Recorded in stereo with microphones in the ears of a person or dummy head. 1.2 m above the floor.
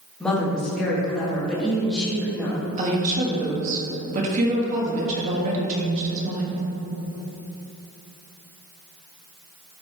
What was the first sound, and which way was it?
A woman speaking, centre (ahead or behind).